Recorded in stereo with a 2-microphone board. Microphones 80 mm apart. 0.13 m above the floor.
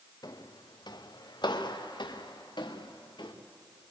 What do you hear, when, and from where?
0.2 s footsteps: 60° left (ahead or behind), 1.8 m; by 3.3 s 85° left, 3 m